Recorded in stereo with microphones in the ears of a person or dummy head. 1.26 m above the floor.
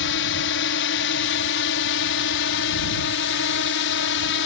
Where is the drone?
60° left (ahead or behind).